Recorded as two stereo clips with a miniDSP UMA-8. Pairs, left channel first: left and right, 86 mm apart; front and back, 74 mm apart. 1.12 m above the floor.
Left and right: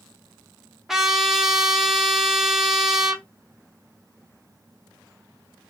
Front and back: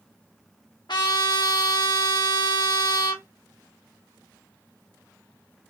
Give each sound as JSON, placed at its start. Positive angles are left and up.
{"t": 0.9, "sound": "a trumpet", "azimuth_deg": -5, "distance_m": 1.1}